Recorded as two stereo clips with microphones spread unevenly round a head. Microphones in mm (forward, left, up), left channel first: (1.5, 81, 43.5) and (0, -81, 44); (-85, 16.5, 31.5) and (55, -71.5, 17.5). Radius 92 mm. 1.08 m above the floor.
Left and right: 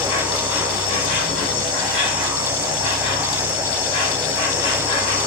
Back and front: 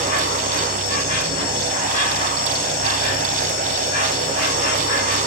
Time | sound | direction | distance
0.0 | an insect | 140° left | 1.7 m